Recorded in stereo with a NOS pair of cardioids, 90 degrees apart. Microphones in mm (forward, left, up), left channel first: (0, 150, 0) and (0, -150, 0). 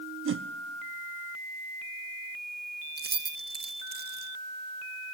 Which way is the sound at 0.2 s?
45° right.